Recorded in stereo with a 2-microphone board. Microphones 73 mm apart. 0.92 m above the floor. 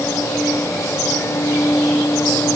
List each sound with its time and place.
Only background noise.